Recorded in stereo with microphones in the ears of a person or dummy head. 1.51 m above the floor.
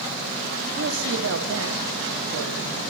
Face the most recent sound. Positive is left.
turn(degrees=-80)